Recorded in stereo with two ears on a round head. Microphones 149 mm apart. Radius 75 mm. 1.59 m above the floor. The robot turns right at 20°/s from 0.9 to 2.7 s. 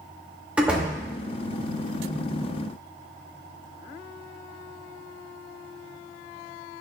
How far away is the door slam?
About 1.7 m.